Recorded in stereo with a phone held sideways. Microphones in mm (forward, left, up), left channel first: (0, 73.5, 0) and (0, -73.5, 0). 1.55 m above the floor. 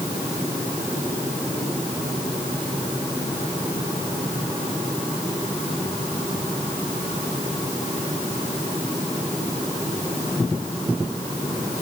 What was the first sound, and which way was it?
Only background noise.